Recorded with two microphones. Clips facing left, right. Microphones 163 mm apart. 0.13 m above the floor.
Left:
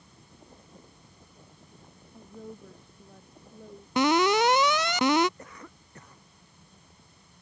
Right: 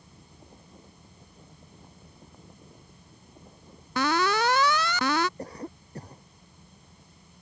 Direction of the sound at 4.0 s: 20° left (ahead or behind).